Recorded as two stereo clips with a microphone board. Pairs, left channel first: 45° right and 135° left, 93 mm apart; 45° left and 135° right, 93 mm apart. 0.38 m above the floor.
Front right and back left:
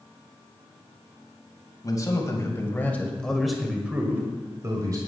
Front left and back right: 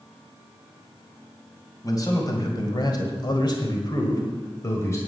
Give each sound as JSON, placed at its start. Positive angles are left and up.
{"t": 1.8, "sound": "a man speaking", "azimuth_deg": 0, "distance_m": 2.5}